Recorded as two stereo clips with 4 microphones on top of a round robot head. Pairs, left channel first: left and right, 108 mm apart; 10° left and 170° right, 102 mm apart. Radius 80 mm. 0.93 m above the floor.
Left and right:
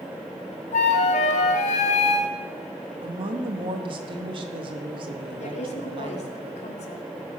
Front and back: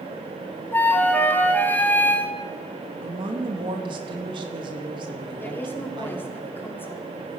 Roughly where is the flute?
Left.